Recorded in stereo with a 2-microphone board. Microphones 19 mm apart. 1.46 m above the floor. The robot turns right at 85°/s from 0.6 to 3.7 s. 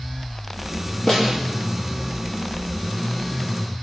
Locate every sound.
1.1 s a snare drum: 35° left (ahead or behind), 5 m; by 1.4 s 5° left (ahead or behind), 5 m